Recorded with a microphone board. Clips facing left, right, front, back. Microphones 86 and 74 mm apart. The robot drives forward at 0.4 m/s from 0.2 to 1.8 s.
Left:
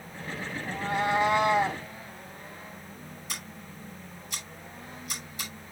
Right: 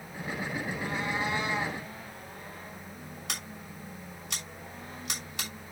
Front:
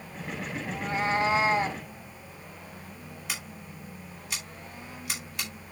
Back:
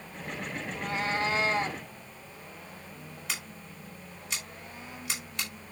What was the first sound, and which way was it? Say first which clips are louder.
A cat meowing: left 9 dB, front 4 dB; 65° left.